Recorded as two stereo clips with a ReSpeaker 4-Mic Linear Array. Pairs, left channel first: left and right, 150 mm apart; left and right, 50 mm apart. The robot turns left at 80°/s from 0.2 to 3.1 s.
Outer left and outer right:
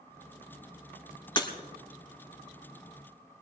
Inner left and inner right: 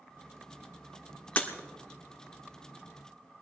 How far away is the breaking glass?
About 1.4 m.